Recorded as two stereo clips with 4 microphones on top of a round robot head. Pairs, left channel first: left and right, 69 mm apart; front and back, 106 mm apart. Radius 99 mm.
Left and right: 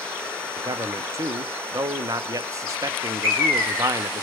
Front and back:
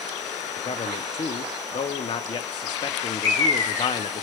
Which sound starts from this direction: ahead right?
A man speaking, at 0.6 s.